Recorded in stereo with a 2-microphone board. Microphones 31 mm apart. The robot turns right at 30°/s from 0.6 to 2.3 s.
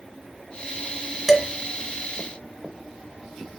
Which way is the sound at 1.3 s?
10° right (ahead or behind).